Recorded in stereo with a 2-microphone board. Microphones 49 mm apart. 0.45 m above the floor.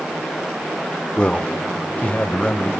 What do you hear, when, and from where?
1.2 s a man speaking: 20° left (ahead or behind), 0.8 m; by 2.7 s 30° left (ahead or behind), 2 m